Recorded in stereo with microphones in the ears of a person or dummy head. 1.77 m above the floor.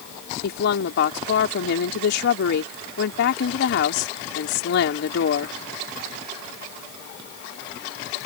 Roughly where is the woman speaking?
Left.